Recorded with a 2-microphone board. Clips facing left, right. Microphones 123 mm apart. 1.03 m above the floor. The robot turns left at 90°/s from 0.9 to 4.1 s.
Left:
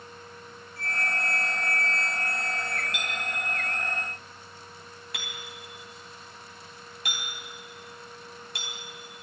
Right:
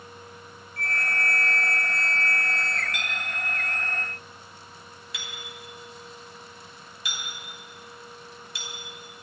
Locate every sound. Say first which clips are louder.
0.8 s a flute: right 1 dB; 80° right, 1.0 m; by 2.8 s 105° left, 1.0 m
2.9 s a clink: even; 25° left (ahead or behind), 4 m; by 8.7 s 55° left (ahead or behind), 4 m